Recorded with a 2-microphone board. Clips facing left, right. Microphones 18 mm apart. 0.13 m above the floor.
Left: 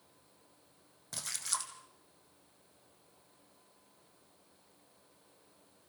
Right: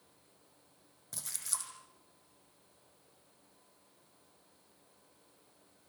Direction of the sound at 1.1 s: 20° left (ahead or behind).